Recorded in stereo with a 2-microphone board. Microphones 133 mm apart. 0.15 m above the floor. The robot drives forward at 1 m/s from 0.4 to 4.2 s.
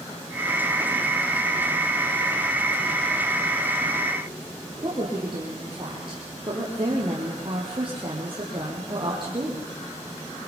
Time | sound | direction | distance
4.8 | a woman speaking | 40° right (ahead or behind) | 5.5 m